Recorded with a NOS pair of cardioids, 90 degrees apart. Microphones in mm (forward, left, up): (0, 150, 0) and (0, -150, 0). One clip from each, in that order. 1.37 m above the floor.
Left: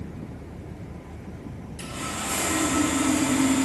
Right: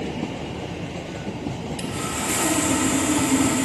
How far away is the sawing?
About 4 m.